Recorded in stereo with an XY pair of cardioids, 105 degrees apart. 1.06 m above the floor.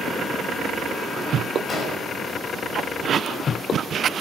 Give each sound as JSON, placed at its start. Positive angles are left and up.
{"t": 1.7, "sound": "an explosion", "azimuth_deg": 45, "distance_m": 5.0}